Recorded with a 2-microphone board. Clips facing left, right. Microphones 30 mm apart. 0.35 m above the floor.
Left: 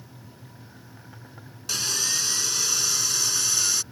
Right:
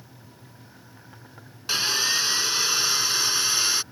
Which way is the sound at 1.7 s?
30° right (ahead or behind).